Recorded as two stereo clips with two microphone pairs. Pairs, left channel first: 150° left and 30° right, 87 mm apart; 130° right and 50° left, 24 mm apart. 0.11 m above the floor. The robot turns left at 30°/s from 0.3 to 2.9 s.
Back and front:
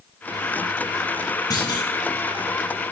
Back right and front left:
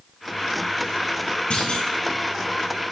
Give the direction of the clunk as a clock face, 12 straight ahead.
5 o'clock.